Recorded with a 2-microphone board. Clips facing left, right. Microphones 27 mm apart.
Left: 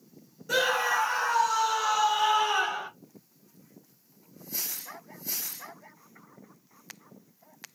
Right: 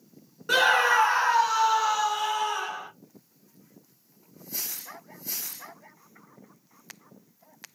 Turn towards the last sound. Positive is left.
turn(degrees=35)  # may be behind; listen again after turning